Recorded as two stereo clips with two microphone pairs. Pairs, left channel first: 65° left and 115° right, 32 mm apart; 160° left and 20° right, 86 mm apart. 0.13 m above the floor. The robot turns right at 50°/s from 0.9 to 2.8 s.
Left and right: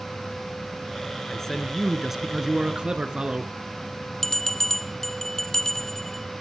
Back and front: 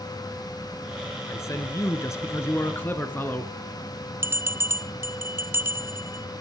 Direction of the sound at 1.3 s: 130° left.